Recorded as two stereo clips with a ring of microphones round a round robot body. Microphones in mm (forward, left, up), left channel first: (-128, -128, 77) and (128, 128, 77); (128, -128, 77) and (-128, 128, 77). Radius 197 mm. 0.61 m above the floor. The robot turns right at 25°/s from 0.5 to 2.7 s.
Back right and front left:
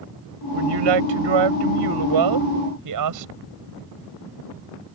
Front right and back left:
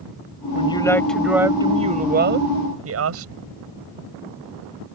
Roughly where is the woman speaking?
Ahead left.